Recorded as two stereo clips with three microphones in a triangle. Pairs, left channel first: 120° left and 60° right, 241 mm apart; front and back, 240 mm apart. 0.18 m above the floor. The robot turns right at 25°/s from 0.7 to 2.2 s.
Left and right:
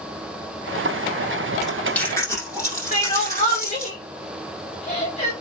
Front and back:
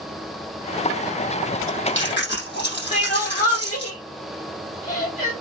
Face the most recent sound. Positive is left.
turn(degrees=60)